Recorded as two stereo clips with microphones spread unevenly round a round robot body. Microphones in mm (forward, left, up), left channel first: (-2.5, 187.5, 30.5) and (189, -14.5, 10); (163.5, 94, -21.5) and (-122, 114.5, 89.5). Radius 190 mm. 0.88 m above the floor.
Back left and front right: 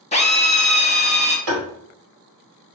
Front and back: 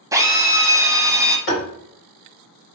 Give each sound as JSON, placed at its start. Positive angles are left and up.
{"t": 0.1, "sound": "a drill", "azimuth_deg": 75, "distance_m": 1.0}
{"t": 1.5, "sound": "tapping", "azimuth_deg": -55, "distance_m": 2.0}